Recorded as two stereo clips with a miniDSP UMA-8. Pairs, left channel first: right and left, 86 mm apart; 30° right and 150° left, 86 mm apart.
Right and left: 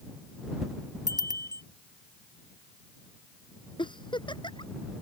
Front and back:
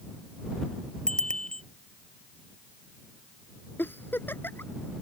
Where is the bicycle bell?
50° left.